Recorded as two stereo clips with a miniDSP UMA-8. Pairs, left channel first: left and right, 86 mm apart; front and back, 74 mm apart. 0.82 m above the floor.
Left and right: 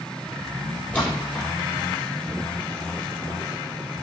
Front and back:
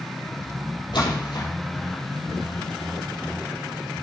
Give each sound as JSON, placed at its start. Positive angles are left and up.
{"t": 0.9, "sound": "a splash", "azimuth_deg": 15, "distance_m": 3.5}